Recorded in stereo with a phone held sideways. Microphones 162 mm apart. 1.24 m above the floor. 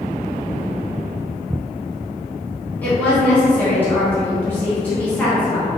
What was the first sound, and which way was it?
A woman speaking, 10° left (ahead or behind).